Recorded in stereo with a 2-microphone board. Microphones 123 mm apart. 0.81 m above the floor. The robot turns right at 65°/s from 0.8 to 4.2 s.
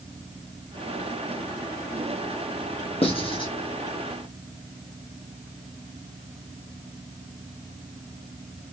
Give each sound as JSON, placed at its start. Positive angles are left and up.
{"t": 3.0, "sound": "writing", "side_deg": 50, "distance_m": 1.1}